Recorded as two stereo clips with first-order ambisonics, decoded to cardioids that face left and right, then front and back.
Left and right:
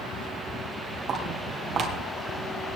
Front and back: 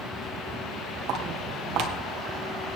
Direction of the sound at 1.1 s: 150° right.